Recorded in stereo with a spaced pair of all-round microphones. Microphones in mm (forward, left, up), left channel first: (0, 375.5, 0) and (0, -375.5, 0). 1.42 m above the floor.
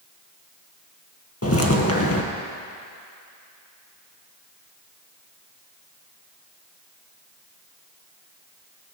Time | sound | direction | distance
1.4 | footsteps | 20° left (ahead or behind) | 1.5 m